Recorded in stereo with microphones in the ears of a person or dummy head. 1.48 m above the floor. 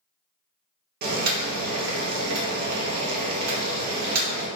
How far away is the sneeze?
No sneeze in this recording.